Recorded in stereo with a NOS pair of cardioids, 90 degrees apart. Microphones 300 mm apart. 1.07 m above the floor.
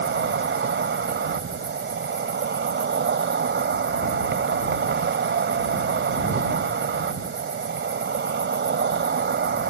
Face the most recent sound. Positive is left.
turn(degrees=-40)